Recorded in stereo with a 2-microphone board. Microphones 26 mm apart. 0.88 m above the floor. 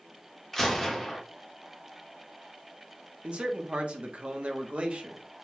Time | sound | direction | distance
0.5 | a gunshot | 10° left (ahead or behind) | 1.3 m
3.2 | a man speaking | 45° right (ahead or behind) | 0.9 m